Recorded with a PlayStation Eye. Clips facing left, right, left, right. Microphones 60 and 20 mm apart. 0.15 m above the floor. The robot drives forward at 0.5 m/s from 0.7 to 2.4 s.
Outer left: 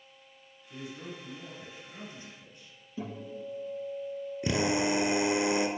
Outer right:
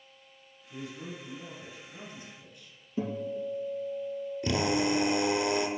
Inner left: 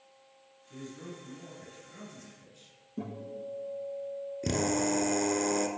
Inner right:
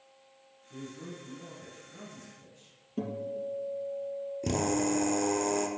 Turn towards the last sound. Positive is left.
turn(degrees=20)  # may be behind; listen again after turning